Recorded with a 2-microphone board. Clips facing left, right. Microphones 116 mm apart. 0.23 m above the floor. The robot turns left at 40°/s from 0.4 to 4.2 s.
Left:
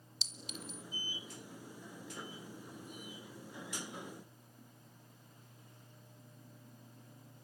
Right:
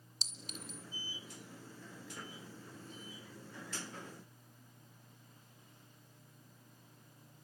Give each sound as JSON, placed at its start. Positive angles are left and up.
{"t": 0.2, "sound": "a clink", "side_deg": -45, "distance_m": 1.6}